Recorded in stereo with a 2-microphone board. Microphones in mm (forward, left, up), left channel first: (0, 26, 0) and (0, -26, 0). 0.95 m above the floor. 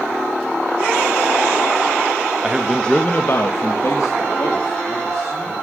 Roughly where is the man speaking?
Centre.